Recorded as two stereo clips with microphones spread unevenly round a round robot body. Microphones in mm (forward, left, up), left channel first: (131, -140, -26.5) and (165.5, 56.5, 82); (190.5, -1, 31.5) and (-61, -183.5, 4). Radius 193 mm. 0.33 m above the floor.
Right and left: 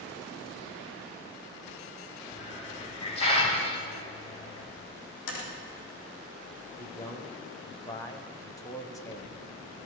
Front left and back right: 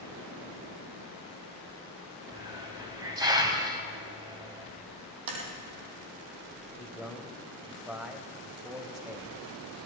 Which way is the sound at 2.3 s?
70° right.